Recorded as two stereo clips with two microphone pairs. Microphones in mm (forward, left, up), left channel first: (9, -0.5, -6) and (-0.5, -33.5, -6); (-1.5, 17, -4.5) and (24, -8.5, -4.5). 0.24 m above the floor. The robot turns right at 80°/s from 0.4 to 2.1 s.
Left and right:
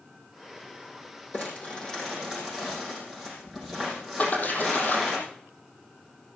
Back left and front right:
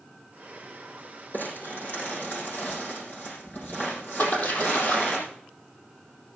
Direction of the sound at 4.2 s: 115° left.